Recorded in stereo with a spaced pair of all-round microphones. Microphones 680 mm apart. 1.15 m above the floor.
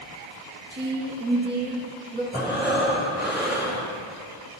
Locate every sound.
0.7 s a woman speaking: 15° right (ahead or behind), 1.7 m
2.3 s breathing: centre (ahead or behind), 2.5 m